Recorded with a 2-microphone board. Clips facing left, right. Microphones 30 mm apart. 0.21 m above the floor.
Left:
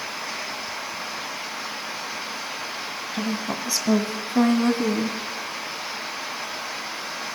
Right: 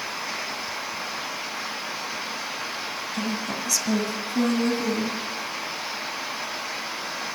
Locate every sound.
3.1 s a woman speaking: 15° left (ahead or behind), 1.2 m; by 5.2 s 50° left (ahead or behind), 1.9 m